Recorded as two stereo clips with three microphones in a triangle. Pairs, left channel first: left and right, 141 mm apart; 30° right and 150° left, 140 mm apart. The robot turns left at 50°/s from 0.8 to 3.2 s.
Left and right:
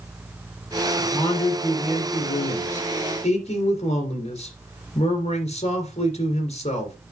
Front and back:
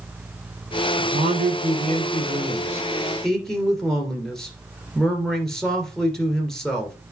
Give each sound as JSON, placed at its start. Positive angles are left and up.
{"t": 1.0, "sound": "a man speaking", "azimuth_deg": 165, "distance_m": 2.5}